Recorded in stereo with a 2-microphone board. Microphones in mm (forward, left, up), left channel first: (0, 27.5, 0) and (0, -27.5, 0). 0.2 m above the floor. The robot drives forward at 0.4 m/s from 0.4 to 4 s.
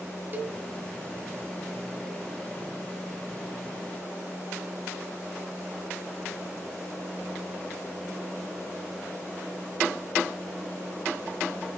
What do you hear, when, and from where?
0.3 s a cowbell: 35° right (ahead or behind), 0.8 m